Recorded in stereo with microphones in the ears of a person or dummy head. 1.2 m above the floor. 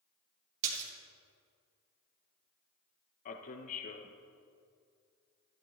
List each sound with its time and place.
0.6 s a splash: 40° right (ahead or behind), 1.8 m
3.2 s a man speaking: 45° left (ahead or behind), 0.7 m